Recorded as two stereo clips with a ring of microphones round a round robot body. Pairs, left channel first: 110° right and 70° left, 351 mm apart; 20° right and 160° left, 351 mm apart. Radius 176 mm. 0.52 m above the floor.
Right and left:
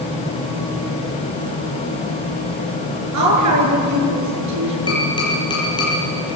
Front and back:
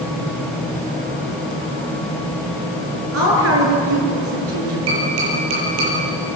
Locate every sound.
3.1 s a woman speaking: 105° left, 7.5 m
4.9 s tapping: 170° left, 8.5 m